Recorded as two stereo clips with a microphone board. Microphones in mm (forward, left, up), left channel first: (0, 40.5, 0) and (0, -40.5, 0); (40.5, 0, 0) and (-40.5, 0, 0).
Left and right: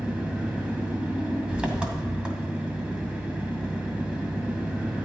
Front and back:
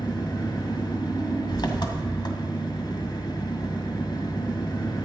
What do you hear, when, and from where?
0.0 s an engine running: 15° right, 1.9 m